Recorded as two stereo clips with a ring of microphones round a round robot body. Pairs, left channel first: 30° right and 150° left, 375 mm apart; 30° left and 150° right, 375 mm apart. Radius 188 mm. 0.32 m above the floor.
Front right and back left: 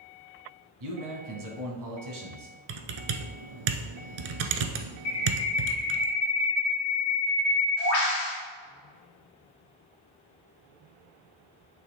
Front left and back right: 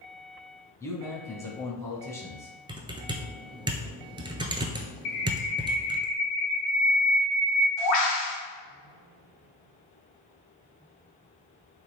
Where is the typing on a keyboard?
130° left, 0.9 m.